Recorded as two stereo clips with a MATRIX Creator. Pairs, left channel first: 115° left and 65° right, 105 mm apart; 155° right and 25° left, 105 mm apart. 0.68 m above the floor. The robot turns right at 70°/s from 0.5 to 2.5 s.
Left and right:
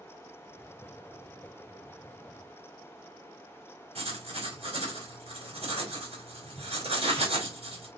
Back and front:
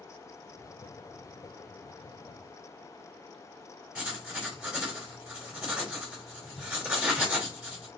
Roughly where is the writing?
Ahead right.